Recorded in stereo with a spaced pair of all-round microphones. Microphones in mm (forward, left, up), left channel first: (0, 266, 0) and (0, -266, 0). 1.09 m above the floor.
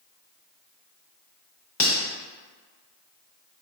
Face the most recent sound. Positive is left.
turn(degrees=55)  # may be behind; listen again after turning